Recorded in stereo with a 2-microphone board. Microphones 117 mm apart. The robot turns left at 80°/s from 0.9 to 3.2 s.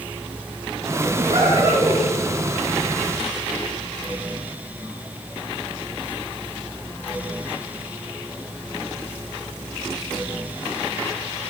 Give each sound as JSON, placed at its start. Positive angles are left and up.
{"t": 1.2, "sound": "laughter", "azimuth_deg": -105, "distance_m": 8.5}